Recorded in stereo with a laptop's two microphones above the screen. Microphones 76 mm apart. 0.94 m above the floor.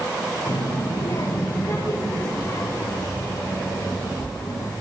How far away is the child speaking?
About 1.6 m.